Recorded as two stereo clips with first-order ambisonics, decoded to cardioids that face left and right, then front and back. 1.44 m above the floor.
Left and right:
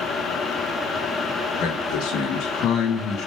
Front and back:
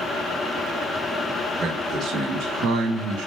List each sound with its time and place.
1.6 s a man speaking: 110° left, 2 m; by 3.3 s 150° left, 1.8 m